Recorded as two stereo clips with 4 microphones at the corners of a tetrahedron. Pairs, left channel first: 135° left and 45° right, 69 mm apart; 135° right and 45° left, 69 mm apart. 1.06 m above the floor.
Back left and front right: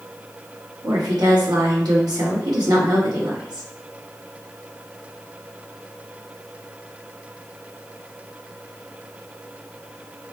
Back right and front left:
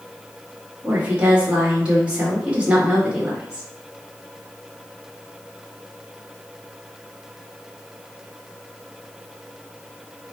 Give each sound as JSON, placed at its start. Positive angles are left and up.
{"t": 0.8, "sound": "a woman speaking", "azimuth_deg": -30, "distance_m": 1.3}